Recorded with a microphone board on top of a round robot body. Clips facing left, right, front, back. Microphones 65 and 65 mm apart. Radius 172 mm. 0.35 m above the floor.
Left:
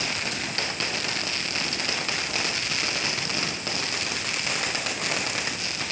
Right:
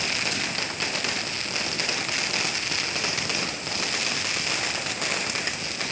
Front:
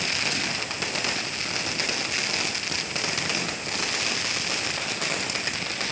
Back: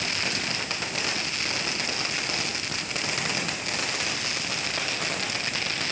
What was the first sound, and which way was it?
Only background noise.